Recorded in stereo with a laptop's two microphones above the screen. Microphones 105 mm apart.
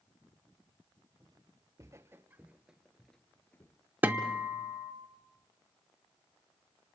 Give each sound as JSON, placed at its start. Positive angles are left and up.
{"t": 1.2, "sound": "footsteps", "side_deg": -40, "distance_m": 1.3}
{"t": 4.0, "sound": "a guitar", "side_deg": -15, "distance_m": 0.8}